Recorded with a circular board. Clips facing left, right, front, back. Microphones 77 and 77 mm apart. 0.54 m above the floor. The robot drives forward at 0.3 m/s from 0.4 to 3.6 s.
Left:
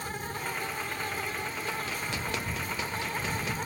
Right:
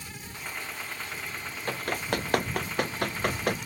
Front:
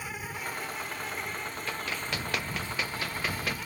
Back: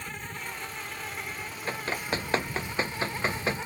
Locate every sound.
0.0 s an insect: 80° left; by 3.7 s 120° left
1.7 s running footsteps: 125° right; by 3.6 s 120° right